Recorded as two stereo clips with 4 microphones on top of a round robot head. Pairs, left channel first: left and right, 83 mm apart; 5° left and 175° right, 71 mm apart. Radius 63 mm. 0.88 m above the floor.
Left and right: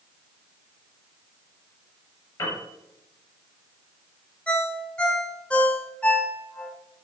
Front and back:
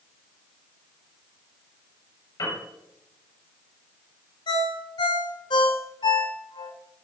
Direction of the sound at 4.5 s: 15° left.